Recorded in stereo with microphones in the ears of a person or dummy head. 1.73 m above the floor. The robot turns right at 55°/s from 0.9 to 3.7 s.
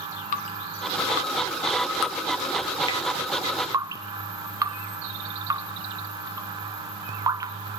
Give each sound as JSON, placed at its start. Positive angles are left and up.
{"t": 0.3, "sound": "dripping", "side_deg": 40, "distance_m": 1.2}